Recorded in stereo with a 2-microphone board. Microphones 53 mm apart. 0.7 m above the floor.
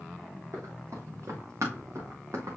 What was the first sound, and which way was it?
Running footsteps, 65° right (ahead or behind).